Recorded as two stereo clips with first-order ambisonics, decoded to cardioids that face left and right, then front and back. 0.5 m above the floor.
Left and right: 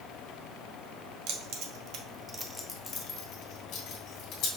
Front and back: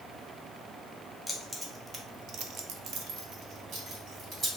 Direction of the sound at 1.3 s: 95° right.